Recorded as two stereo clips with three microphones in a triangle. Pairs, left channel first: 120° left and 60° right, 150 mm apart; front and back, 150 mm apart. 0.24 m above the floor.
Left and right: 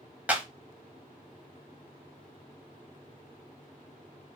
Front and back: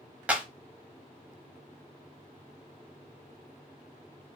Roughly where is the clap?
Behind right.